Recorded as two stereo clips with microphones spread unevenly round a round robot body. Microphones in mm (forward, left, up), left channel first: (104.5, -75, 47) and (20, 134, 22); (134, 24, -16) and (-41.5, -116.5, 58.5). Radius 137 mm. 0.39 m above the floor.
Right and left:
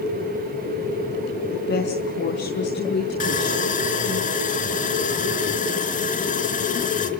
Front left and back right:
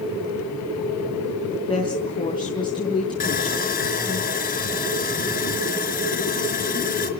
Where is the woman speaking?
25° right, 5.5 m.